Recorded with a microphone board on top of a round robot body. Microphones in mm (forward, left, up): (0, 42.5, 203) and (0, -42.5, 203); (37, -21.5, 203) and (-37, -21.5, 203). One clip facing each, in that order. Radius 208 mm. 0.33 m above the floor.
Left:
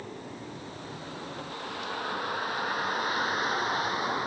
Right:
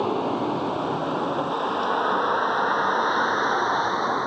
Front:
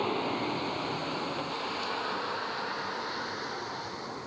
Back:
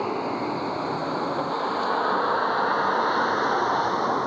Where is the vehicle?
105° right; by 4.3 s 155° right.